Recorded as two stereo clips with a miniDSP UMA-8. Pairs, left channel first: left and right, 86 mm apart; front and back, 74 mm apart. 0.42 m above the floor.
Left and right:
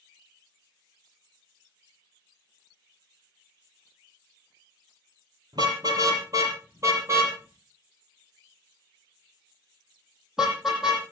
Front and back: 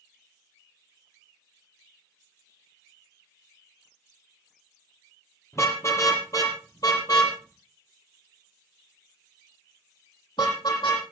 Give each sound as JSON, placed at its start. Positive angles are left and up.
{"t": 5.5, "sound": "a car horn", "azimuth_deg": -50, "distance_m": 6.0}